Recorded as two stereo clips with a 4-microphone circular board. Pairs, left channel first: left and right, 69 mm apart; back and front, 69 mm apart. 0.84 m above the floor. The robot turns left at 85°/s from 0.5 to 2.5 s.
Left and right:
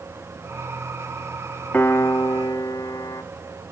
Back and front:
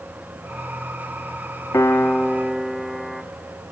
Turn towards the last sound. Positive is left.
turn(degrees=85)